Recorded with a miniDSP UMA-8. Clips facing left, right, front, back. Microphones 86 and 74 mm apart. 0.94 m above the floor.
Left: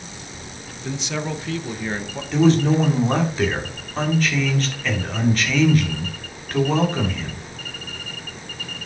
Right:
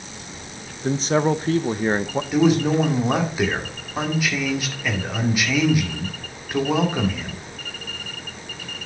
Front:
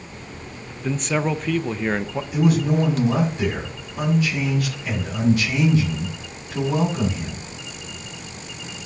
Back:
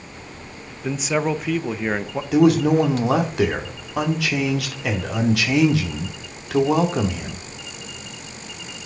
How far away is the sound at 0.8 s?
About 0.6 m.